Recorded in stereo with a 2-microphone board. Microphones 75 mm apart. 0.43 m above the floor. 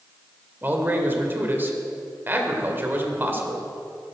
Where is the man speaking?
25° right (ahead or behind), 1.8 m.